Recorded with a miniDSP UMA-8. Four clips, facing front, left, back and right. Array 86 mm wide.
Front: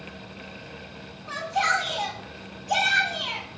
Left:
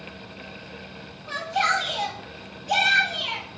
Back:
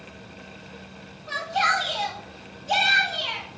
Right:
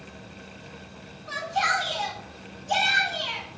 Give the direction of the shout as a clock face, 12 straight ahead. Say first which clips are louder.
Left 2 dB, back 1 dB; 7 o'clock.